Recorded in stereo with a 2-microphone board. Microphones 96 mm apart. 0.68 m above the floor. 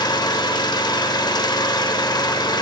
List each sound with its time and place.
0.0 s an engine running: 45° left (ahead or behind), 1.3 m